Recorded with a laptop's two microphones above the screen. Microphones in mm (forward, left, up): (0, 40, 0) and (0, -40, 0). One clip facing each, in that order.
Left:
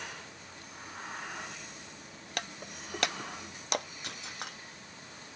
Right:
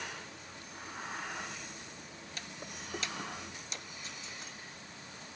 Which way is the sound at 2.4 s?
65° left (ahead or behind).